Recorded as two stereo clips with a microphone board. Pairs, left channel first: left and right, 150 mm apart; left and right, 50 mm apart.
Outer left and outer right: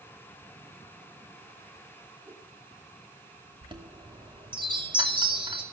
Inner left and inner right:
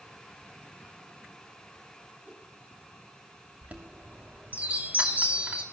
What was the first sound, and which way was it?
A whoosh, 20° right (ahead or behind).